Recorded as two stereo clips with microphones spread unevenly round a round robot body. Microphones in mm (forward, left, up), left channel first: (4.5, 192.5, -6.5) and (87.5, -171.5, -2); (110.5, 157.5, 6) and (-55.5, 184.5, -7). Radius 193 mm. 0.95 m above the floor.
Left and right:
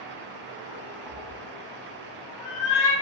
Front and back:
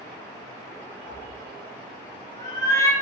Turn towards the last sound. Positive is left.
turn(degrees=65)